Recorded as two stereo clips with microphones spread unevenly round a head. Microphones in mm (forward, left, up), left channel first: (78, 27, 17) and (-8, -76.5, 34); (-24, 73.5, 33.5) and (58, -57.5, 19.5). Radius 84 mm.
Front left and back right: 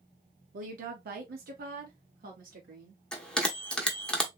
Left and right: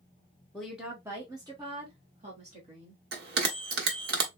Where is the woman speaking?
150° right, 0.9 m; by 3.0 s 105° right, 2.5 m.